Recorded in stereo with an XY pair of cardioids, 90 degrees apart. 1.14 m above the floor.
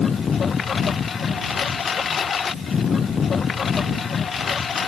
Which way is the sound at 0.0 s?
50° left.